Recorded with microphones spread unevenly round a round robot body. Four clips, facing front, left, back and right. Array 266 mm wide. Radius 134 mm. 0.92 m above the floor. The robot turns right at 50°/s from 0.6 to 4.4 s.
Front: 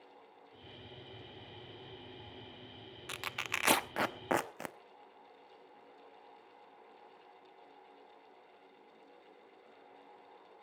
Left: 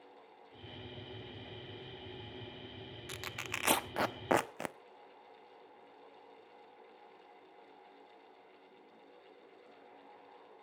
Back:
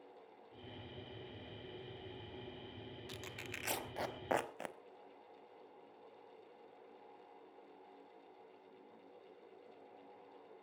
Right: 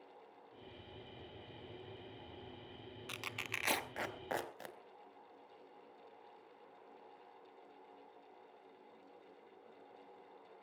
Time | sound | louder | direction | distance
3.1 | tearing paper | left 2 dB, front 7 dB | straight ahead | 0.9 m